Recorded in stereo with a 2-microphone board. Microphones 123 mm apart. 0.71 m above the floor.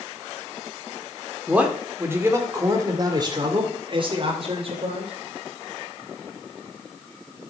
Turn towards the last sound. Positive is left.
turn(degrees=-50)  # may be behind; listen again after turning